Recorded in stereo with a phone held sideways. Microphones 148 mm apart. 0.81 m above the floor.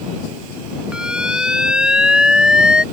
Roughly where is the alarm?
Centre.